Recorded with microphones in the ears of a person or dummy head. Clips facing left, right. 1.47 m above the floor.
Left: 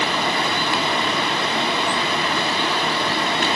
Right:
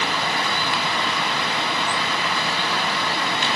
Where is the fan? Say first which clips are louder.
Left 3 dB; 25° left (ahead or behind), 1.0 m.